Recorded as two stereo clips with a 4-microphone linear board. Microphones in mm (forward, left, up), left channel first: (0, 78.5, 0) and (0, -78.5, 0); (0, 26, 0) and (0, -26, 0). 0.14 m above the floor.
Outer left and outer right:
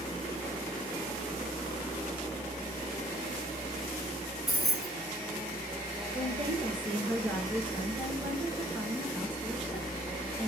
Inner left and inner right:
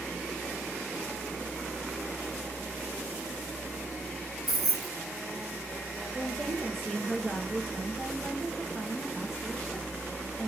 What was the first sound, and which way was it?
Keys jangling, centre (ahead or behind).